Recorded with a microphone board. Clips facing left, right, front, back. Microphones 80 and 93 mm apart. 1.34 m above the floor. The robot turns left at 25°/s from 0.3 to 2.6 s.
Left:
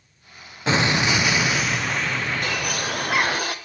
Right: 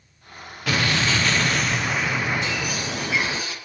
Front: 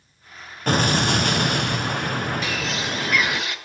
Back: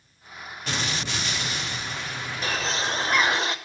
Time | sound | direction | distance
0.7 | an explosion | 30° left | 0.7 m
2.4 | a bird | 125° left | 0.9 m